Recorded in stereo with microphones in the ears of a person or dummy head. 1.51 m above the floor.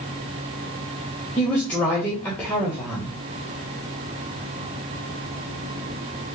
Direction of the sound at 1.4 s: 5° left (ahead or behind).